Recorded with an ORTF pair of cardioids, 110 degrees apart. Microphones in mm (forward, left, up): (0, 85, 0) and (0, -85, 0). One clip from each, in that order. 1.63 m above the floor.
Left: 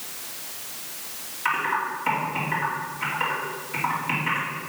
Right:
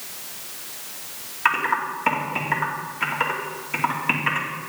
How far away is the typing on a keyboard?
About 2.5 m.